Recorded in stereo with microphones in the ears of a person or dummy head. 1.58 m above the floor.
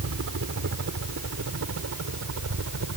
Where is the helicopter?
60° right (ahead or behind); by 3.0 s 70° right (ahead or behind).